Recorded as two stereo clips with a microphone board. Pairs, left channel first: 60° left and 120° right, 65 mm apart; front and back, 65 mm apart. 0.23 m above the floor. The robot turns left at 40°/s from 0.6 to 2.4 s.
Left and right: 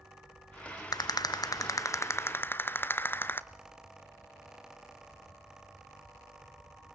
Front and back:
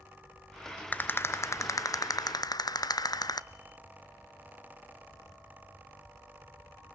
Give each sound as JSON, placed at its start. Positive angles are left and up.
{"t": 0.9, "sound": "a rattle", "azimuth_deg": 65, "distance_m": 0.8}